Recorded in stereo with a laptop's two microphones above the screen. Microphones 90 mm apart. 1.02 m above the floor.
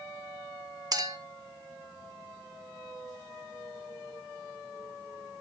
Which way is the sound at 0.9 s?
45° right (ahead or behind).